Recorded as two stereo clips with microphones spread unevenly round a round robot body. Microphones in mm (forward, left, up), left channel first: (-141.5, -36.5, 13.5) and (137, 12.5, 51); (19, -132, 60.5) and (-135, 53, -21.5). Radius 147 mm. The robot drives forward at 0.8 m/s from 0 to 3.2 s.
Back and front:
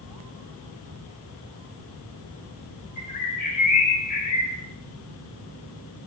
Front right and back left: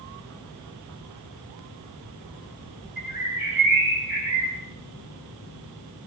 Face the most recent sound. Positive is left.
turn(degrees=-155)